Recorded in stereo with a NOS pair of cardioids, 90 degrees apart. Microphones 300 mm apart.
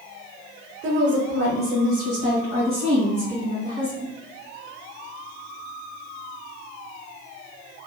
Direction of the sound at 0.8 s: 40° right.